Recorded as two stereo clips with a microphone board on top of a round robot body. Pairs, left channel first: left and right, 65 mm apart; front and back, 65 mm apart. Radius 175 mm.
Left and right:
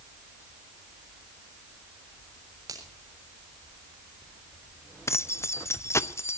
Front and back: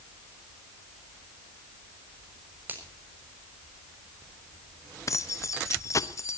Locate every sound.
2.7 s a finger snap: 120° right, 6 m
5.1 s keys jangling: 40° left, 1.0 m